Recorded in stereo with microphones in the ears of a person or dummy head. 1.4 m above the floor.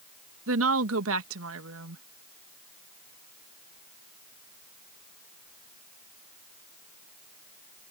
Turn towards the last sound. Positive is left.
turn(degrees=-75)  # may be behind; listen again after turning